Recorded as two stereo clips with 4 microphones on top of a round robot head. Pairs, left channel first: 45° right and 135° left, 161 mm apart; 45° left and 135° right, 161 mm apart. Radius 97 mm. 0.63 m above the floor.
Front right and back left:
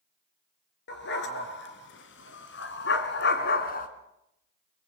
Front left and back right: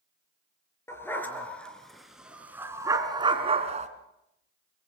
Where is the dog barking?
30° right, 3.5 m; by 3.9 s 90° right, 2.5 m.